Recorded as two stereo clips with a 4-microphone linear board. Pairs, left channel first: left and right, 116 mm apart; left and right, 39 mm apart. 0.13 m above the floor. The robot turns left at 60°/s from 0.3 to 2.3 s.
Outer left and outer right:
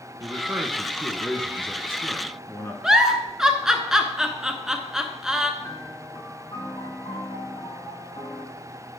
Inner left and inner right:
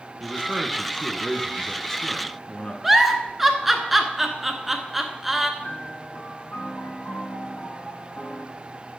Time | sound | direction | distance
0.2 | a man speaking | 120° right | 1.4 m
2.8 | a giggle | 5° right (ahead or behind) | 0.8 m
5.6 | a piano | 65° left (ahead or behind) | 5.5 m